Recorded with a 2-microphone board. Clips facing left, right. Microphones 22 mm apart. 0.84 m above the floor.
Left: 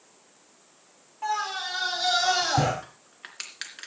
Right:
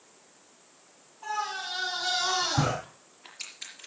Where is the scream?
75° left (ahead or behind), 3.5 m; by 2.7 s 80° left, 5.5 m.